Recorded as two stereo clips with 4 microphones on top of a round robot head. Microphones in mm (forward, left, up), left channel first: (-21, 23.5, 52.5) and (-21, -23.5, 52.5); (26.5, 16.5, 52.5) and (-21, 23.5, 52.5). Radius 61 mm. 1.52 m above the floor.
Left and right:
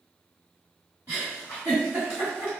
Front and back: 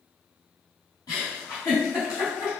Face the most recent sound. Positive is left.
turn(degrees=-25)